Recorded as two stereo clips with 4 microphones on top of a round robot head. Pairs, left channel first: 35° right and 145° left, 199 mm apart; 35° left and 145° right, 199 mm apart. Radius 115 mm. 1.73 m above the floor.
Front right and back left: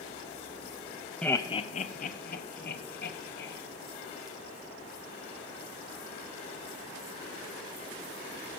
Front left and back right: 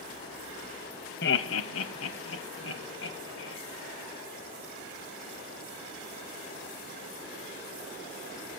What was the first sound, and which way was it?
Laughter, 50° left.